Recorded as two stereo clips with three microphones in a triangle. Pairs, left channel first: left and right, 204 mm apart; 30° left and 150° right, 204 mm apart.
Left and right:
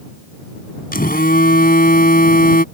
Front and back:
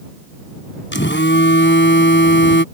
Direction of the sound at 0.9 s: 50° left.